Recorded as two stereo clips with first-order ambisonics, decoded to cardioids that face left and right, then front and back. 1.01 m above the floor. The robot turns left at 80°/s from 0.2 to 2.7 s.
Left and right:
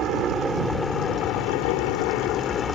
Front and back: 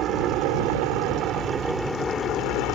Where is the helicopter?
140° right; by 2.8 s 20° left.